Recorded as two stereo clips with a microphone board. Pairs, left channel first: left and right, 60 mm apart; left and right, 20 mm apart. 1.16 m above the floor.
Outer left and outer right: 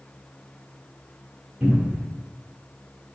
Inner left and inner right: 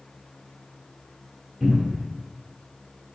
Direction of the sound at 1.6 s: 25° right (ahead or behind).